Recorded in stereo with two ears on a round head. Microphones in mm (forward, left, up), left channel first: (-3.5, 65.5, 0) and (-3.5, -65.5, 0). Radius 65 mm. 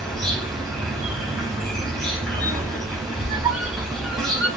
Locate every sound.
0.0 s an insect: 5° left (ahead or behind), 1.5 m
3.1 s a squeak: 5° right (ahead or behind), 0.9 m